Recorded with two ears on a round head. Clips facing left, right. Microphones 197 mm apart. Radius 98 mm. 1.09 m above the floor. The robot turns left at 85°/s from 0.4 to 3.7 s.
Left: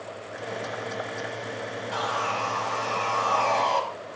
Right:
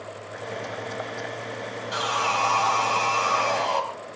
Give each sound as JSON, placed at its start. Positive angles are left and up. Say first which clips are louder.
{"t": 1.9, "sound": "sawing", "louder": "right 2 dB", "azimuth_deg": -25, "distance_m": 5.0}